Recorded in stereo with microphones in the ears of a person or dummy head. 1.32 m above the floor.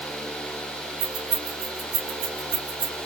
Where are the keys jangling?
45° right (ahead or behind), 4 m.